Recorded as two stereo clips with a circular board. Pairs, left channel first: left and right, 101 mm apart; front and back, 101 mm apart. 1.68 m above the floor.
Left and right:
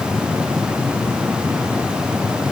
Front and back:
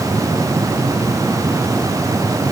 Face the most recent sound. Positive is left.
No sound to turn to.